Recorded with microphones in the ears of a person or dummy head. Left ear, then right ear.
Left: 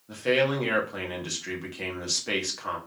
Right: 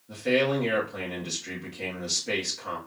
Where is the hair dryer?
No hair dryer in this recording.